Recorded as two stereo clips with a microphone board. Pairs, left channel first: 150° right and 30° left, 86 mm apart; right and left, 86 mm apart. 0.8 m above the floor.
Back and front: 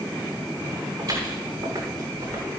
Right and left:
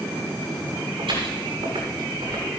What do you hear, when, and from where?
1.0 s footsteps: 70° left, 7 m; by 2.4 s 60° left, 8 m